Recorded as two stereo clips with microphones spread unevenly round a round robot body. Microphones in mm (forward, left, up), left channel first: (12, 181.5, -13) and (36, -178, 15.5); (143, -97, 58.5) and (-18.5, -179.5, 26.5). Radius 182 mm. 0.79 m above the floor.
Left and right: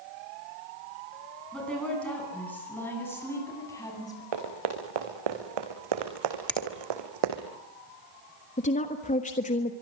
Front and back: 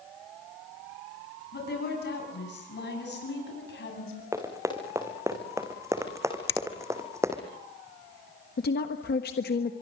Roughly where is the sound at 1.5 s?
Ahead.